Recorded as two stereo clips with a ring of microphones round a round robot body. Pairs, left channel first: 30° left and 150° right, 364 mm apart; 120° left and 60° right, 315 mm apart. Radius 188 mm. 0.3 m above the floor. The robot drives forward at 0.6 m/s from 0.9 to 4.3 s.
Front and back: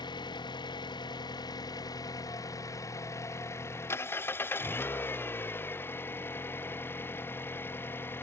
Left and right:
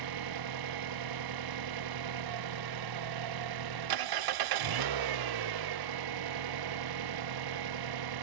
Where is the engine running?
50° right; by 8.2 s 55° right.